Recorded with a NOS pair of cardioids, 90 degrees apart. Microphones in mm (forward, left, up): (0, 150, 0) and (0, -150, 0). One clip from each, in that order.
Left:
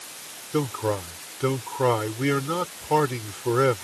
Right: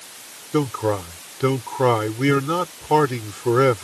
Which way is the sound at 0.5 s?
35° right.